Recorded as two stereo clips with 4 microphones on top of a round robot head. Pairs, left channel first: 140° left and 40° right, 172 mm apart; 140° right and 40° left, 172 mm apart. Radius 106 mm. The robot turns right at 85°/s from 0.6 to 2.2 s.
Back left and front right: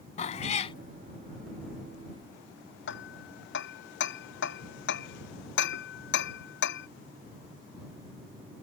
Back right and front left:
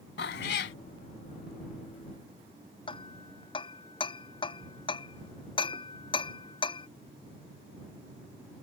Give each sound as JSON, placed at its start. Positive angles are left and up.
{"t": 0.2, "sound": "a cat meowing", "azimuth_deg": -170}
{"t": 2.9, "sound": "hammering", "azimuth_deg": 160}